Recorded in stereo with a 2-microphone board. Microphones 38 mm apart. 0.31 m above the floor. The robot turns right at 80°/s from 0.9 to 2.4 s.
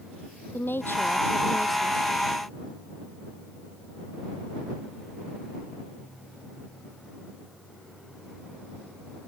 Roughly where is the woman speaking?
Behind left.